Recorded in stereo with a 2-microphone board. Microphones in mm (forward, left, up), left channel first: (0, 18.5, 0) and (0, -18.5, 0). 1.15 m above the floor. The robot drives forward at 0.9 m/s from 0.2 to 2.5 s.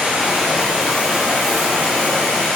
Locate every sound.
0.0 s running water: 25° right (ahead or behind), 2.5 m; by 2.6 s 15° right (ahead or behind), 4.5 m